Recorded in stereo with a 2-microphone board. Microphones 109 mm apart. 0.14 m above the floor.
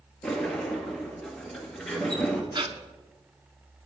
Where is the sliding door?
10° left (ahead or behind), 2.0 m.